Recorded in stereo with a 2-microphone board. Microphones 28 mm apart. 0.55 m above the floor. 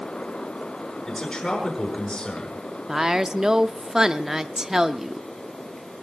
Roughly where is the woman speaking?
Right.